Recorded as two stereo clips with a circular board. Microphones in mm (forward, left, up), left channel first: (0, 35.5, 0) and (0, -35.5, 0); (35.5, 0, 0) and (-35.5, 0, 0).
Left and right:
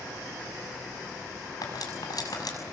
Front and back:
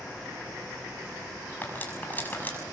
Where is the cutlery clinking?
65° left, 6.5 m.